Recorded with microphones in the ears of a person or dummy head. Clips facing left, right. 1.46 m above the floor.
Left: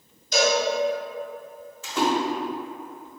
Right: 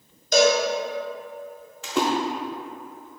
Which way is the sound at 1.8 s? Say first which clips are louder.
Even; 50° right (ahead or behind).